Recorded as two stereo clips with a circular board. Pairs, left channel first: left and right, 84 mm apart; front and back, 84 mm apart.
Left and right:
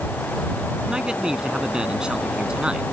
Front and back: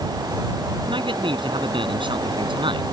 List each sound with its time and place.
0.9 s a man speaking: 170° right